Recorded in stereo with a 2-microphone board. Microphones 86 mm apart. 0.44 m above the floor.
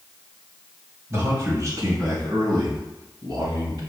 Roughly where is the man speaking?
Right.